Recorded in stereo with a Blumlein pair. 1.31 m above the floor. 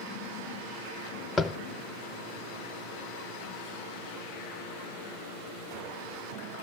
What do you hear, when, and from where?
1.4 s tapping: 20° left, 0.8 m